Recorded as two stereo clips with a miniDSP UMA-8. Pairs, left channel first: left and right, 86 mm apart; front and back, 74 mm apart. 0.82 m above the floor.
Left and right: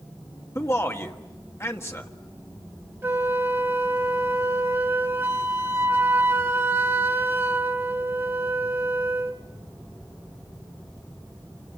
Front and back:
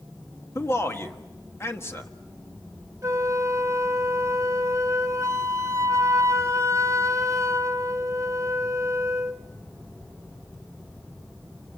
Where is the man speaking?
40° left, 1.5 m.